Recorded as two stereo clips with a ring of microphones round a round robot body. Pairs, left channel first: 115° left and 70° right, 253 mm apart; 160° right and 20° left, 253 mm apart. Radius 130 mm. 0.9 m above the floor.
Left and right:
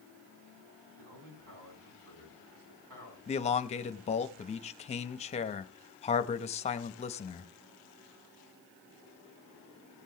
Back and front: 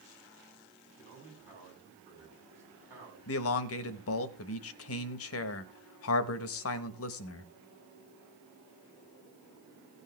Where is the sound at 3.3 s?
175° left, 1.1 m.